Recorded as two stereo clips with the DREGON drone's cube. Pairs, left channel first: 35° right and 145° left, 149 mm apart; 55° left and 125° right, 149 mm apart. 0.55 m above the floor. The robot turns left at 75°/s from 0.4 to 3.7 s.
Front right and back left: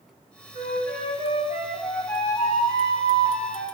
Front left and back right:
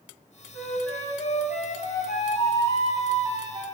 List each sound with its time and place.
0.5 s a flute: 155° left, 1.2 m; by 3.6 s 80° right, 1.2 m